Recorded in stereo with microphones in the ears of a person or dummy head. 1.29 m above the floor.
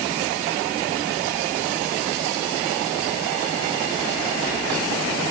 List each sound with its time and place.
Only background noise.